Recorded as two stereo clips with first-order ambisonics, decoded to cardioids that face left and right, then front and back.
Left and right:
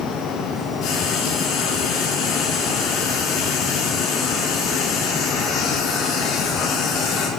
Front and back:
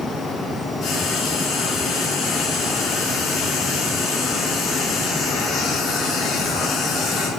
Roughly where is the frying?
Ahead left.